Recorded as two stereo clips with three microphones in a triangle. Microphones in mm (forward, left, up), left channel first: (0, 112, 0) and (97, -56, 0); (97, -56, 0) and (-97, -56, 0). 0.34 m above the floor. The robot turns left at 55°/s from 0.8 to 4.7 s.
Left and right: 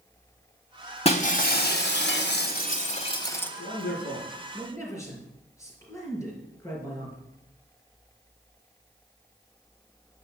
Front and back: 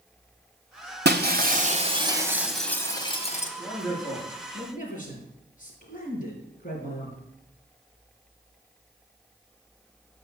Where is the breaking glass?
170° left, 1.3 m; by 3.5 s 40° left, 1.3 m.